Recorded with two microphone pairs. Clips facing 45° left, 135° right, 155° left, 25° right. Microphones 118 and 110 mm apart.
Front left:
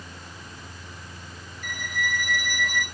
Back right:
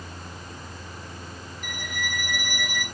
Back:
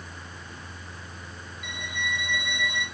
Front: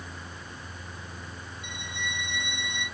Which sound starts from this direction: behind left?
A violin, at 1.6 s.